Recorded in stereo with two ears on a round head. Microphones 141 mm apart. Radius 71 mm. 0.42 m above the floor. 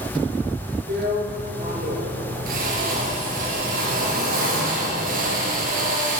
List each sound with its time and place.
0.9 s a drill: 55° right (ahead or behind), 3.5 m